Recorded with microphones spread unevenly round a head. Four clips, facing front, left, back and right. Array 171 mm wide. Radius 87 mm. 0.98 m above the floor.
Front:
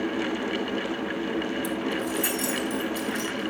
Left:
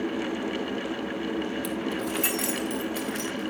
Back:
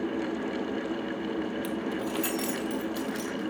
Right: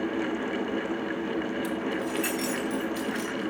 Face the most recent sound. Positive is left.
turn(degrees=145)